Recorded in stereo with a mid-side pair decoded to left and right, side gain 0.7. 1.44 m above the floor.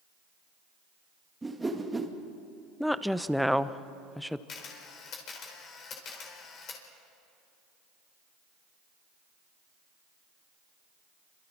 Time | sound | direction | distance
1.4 | a whoosh | 10° right | 2.0 m
2.8 | a woman speaking | straight ahead | 0.8 m
4.5 | a camera shutter | 45° left | 4.5 m